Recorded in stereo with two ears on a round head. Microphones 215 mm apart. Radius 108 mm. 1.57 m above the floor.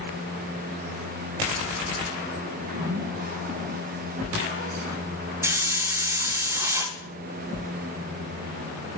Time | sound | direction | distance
2.5 | a zipper | 40° right (ahead or behind) | 2.5 m
5.4 | a hiss | 10° right (ahead or behind) | 1.4 m